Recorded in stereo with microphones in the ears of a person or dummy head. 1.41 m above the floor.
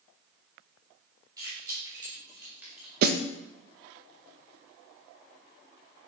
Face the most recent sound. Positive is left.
turn(degrees=-55)  # may be behind; listen again after turning